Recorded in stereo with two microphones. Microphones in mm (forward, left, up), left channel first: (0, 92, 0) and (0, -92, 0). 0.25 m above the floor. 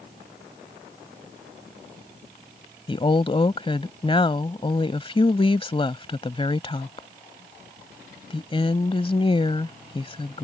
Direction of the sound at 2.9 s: 30° left (ahead or behind).